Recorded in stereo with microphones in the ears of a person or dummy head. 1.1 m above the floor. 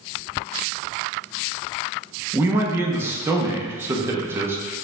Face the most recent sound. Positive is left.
turn(degrees=-10)  # may be behind; listen again after turning